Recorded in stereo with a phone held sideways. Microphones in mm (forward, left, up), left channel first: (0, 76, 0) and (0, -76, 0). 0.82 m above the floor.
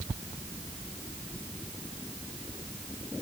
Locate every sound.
Only background noise.